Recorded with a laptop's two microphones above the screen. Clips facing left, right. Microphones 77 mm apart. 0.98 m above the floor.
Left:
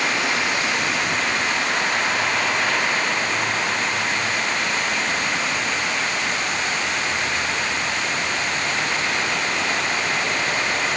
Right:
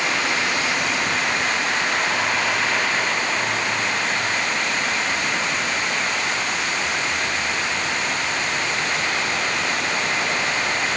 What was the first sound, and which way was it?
Only background noise.